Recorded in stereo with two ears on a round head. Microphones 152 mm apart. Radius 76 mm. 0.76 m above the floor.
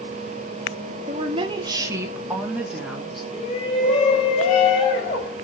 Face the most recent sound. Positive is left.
turn(degrees=35)  # may be behind; listen again after turning